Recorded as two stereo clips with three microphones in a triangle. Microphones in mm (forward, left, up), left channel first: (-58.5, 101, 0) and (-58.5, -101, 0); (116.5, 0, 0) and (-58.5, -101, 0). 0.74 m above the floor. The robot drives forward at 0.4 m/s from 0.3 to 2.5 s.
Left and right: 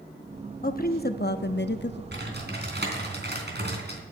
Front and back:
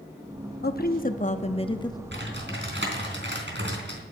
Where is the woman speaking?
55° left, 0.9 m; by 2.0 s 100° left, 0.7 m.